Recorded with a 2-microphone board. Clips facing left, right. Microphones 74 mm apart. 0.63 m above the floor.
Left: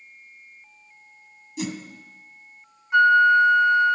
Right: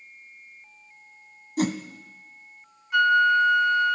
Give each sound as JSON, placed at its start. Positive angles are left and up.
{"t": 1.6, "sound": "a whoosh", "side_deg": -55, "distance_m": 0.8}
{"t": 2.9, "sound": "a flute", "side_deg": 25, "distance_m": 0.7}